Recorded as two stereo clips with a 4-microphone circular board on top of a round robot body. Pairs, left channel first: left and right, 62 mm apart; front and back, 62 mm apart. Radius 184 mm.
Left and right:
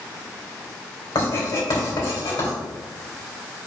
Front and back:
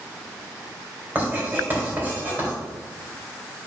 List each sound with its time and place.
1.1 s writing: 120° left, 3 m